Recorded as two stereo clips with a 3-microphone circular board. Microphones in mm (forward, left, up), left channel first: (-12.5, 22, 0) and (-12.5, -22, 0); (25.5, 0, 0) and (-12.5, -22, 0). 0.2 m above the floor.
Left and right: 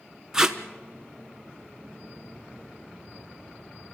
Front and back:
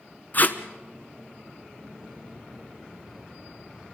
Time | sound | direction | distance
0.3 | tape being pulled | 15° right | 1.1 m